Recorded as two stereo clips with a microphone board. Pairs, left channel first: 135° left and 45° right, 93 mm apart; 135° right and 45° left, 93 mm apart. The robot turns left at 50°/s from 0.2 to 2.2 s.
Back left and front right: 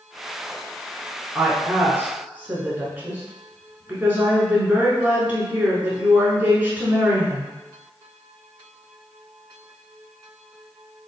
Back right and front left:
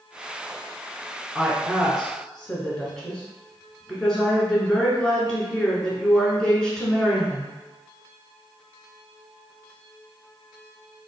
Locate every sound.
1.4 s a woman speaking: 25° right, 1.1 m; by 7.5 s 70° right, 1.1 m